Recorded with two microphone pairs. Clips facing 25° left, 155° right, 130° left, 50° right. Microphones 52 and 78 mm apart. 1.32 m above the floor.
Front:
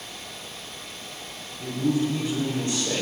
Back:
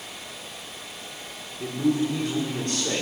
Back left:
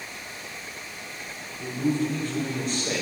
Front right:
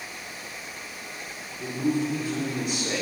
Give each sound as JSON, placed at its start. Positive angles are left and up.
{"t": 1.6, "sound": "a man speaking", "azimuth_deg": -130, "distance_m": 3.5}